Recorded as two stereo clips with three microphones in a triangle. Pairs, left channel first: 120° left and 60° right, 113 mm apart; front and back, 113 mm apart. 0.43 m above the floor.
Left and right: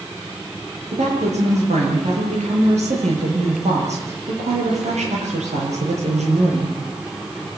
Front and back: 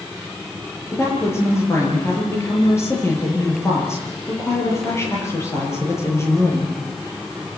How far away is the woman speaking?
About 9 m.